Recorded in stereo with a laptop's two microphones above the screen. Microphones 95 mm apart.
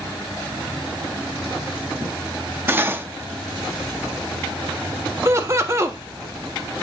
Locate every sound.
2.7 s cutlery clinking: 25° right (ahead or behind), 0.8 m
5.2 s laughter: 30° right (ahead or behind), 1.4 m